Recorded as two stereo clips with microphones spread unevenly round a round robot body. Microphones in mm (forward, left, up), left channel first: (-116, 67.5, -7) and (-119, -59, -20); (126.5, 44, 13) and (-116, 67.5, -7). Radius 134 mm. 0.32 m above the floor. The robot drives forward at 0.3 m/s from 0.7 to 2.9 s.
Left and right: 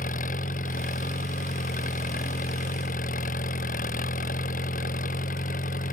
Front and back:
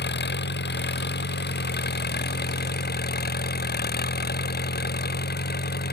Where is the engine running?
40° left; by 5.9 s 45° left.